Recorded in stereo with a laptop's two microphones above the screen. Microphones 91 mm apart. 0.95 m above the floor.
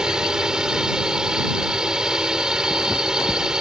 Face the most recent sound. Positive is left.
turn(degrees=-5)  # may be behind; listen again after turning